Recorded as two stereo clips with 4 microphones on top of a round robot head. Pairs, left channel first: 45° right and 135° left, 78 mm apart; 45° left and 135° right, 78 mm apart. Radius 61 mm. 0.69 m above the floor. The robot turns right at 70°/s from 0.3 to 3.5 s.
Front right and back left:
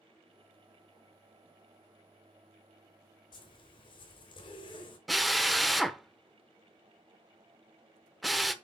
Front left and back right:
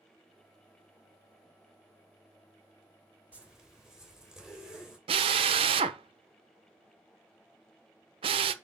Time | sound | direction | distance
3.3 | a zipper | 65° right | 2.5 m
5.1 | a drill | 135° right | 0.6 m